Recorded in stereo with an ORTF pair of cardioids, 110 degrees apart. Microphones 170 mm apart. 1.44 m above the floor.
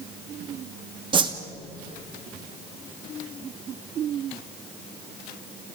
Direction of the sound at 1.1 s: 25° right.